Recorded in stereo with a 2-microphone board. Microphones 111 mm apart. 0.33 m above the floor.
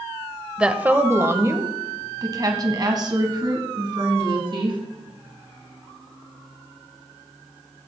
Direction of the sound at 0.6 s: 10° right (ahead or behind).